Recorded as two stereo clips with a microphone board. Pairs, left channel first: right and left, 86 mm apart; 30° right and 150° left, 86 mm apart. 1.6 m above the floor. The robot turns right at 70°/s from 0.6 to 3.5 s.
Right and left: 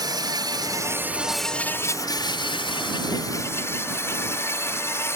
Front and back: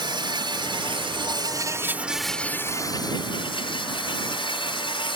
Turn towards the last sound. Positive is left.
turn(degrees=-30)